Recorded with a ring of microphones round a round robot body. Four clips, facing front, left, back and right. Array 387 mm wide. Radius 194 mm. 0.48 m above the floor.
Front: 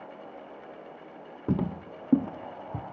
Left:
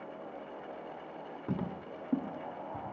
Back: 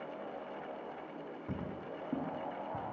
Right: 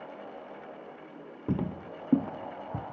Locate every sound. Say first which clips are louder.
1.5 s footsteps: right 6 dB, front 13 dB; 20° right, 1.0 m; by 2.8 s 40° right, 2 m